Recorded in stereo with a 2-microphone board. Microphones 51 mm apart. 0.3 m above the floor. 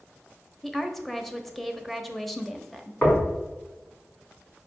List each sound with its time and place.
0.6 s a woman speaking: 5° left (ahead or behind), 0.9 m
3.0 s knocking: 40° left (ahead or behind), 3 m